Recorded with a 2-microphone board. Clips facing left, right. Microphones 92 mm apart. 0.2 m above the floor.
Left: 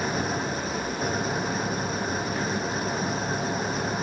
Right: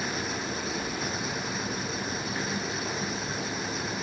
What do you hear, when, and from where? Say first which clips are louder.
0.0 s an engine running: left 5 dB; 40° left (ahead or behind)